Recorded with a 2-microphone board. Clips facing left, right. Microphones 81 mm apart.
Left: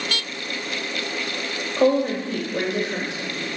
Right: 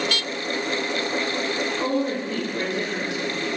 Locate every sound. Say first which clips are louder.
1.8 s a woman speaking: left 9 dB; 75° left (ahead or behind), 1.7 m